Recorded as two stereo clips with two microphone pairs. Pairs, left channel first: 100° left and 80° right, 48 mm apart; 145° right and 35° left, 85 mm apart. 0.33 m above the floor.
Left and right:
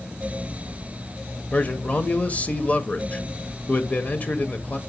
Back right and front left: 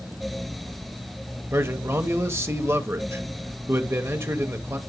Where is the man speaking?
65° left, 1.1 m.